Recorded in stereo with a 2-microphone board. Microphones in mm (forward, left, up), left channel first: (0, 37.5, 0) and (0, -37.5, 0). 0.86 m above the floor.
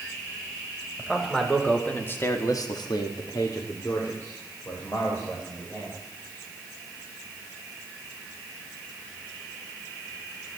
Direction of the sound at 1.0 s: 5° left (ahead or behind).